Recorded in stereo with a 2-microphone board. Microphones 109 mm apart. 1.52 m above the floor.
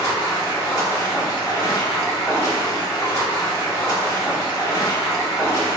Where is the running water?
25° left (ahead or behind), 1.0 m.